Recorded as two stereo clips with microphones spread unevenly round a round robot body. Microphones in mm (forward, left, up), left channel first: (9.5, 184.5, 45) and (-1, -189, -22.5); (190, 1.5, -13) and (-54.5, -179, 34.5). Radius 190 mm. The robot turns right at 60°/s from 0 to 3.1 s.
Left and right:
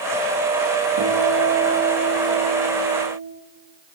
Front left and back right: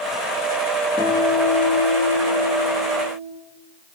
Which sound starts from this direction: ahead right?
A guitar, at 1.0 s.